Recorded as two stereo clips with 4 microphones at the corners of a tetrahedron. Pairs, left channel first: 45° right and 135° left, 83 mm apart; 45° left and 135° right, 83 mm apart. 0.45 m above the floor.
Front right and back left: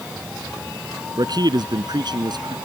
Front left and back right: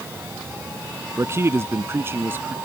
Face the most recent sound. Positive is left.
turn(degrees=160)